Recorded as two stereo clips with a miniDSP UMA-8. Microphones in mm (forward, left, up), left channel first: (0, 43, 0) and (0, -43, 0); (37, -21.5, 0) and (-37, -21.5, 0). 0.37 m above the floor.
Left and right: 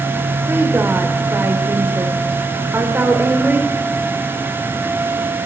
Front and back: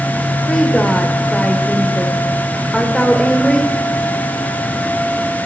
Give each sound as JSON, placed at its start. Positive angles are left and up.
{"t": 0.5, "sound": "a woman speaking", "azimuth_deg": -75, "distance_m": 0.9}